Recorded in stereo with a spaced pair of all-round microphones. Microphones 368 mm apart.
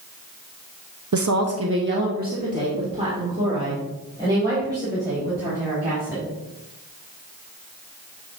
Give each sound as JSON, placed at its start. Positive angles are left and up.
{"t": 1.1, "sound": "a woman speaking", "side_deg": -50, "distance_m": 0.7}